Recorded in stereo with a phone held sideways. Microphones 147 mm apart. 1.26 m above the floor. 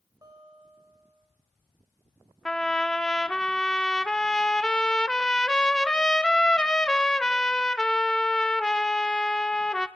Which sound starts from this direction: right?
A guitar, at 0.2 s.